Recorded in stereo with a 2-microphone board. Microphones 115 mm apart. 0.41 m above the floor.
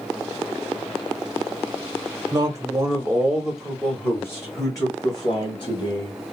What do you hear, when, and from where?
2.3 s a man speaking: 30° right (ahead or behind), 1.1 m; by 6.2 s 45° left (ahead or behind), 1.7 m